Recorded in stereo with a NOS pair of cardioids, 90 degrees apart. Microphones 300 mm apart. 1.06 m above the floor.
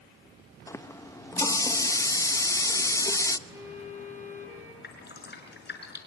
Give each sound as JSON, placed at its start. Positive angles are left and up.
{"t": 0.7, "sound": "a running tap", "azimuth_deg": 10, "distance_m": 0.7}
{"t": 3.5, "sound": "a violin", "azimuth_deg": -10, "distance_m": 8.0}
{"t": 4.8, "sound": "dripping", "azimuth_deg": 35, "distance_m": 5.0}